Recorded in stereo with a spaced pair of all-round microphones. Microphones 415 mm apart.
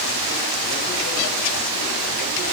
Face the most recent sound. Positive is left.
No sound to turn to.